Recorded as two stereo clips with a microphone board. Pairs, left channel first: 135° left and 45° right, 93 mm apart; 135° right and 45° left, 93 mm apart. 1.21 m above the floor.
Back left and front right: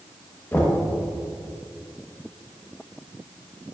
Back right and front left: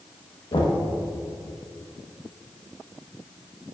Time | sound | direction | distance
0.5 | knocking | 160° right | 1.0 m